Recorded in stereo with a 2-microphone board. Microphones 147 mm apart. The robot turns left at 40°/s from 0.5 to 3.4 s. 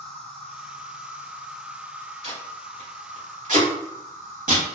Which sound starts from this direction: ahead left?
An insect, at 0.0 s.